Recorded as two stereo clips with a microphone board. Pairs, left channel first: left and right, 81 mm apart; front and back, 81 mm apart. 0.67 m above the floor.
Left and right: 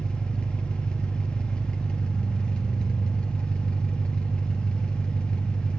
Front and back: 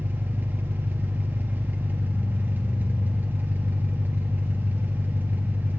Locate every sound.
0.0 s an engine running: 150° left, 0.8 m